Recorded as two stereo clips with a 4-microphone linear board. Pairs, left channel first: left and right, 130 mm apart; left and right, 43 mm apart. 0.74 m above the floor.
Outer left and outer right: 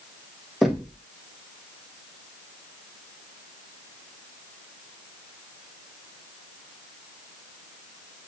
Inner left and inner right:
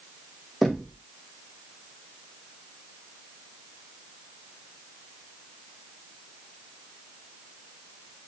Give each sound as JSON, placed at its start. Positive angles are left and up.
{"t": 0.6, "sound": "knocking", "side_deg": 0, "distance_m": 0.8}